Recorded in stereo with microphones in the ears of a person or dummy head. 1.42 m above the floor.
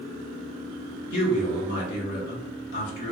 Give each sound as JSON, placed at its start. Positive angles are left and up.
{"t": 1.1, "sound": "a man speaking", "side_deg": 65, "distance_m": 1.0}